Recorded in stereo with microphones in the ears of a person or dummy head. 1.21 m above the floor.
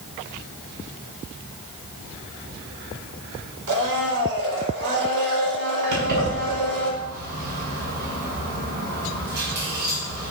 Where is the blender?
65° right (ahead or behind), 4.5 m.